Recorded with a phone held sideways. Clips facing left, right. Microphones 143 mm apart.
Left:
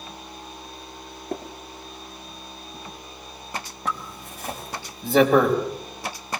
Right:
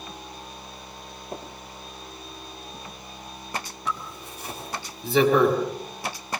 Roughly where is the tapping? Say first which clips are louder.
Left 6 dB; left.